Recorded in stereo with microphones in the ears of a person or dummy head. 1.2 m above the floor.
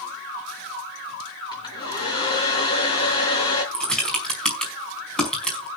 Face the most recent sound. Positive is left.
turn(degrees=0)  # may be behind; listen again after turning